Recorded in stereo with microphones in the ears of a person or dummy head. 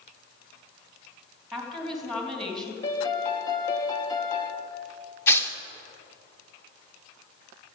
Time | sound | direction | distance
1.5 | a woman speaking | 5° left (ahead or behind) | 2.5 m
2.8 | a piano | 20° left (ahead or behind) | 1.4 m
5.3 | tearing paper | 15° left (ahead or behind) | 0.9 m